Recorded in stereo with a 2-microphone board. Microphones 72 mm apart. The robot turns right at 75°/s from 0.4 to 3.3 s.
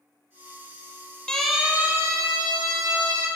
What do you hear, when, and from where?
1.3 s a siren: 15° left (ahead or behind), 6 m; by 3.3 s 45° right (ahead or behind), 8.5 m